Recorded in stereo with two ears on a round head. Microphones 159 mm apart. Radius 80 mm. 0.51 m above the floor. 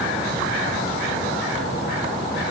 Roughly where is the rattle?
No rattle in this recording.